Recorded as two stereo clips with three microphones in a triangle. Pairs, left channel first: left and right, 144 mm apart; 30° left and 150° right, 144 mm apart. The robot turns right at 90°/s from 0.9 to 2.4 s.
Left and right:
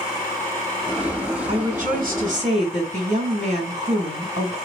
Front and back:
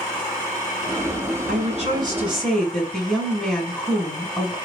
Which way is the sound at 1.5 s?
130° right.